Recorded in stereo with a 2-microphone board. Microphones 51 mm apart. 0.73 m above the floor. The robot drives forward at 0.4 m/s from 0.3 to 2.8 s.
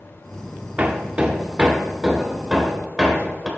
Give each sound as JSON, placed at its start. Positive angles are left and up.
{"t": 0.8, "sound": "hammering", "side_deg": -30, "distance_m": 0.6}